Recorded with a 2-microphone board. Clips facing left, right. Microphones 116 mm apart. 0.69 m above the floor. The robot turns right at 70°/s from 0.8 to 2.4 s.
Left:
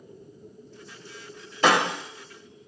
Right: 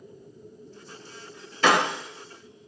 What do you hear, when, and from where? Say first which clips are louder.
1.6 s breaking glass: even; 30° left (ahead or behind), 0.9 m; by 2.7 s 25° right (ahead or behind), 0.9 m